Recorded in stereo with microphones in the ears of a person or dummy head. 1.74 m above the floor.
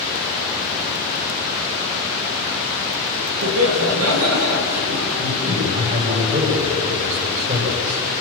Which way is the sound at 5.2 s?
40° right (ahead or behind).